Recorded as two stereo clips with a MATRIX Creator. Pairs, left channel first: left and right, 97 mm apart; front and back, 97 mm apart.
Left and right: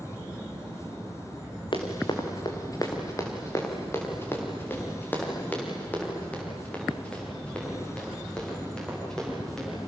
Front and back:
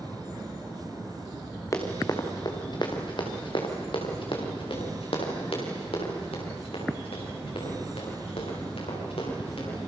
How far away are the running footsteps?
About 3 m.